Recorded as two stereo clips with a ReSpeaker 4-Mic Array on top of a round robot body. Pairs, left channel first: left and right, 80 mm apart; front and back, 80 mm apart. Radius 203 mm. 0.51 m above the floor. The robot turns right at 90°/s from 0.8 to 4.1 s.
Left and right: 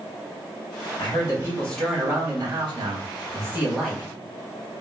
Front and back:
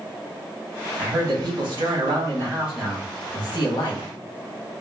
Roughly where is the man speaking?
Left.